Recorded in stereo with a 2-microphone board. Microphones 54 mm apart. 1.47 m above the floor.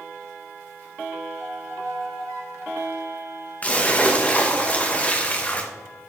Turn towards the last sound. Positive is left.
turn(degrees=30)  # may be behind; listen again after turning